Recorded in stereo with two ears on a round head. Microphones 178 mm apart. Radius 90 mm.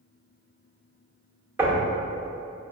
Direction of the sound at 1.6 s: 10° right (ahead or behind).